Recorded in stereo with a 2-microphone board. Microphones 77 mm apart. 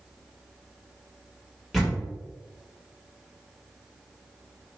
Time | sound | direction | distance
1.7 | a door slam | centre (ahead or behind) | 1.1 m